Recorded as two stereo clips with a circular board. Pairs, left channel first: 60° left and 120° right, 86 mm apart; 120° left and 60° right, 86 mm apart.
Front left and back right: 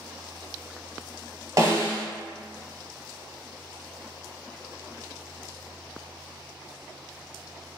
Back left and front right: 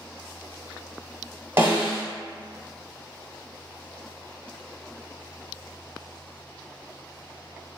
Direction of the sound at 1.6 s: 100° right.